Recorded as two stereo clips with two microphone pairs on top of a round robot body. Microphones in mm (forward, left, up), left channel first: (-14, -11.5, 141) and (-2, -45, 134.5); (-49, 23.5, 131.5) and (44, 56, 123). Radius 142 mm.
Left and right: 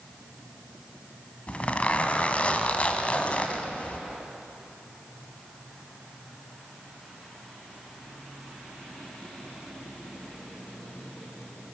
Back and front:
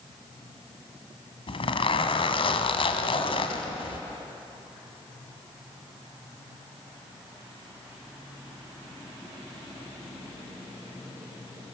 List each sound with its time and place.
1.5 s a zipper: 170° left, 1.5 m